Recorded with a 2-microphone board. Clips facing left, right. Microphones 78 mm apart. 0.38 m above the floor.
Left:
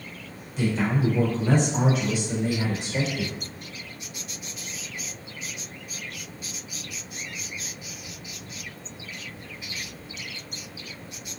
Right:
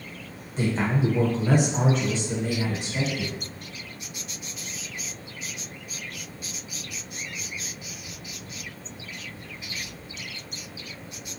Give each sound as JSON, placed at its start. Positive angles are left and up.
{"t": 0.6, "sound": "a man speaking", "side_deg": -40, "distance_m": 1.1}